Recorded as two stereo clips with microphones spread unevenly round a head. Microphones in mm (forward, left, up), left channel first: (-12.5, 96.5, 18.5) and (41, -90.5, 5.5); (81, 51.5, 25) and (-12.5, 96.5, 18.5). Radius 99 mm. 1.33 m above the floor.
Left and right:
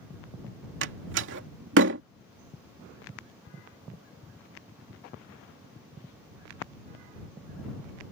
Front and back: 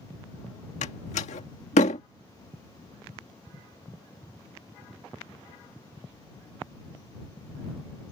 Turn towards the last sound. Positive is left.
turn(degrees=-45)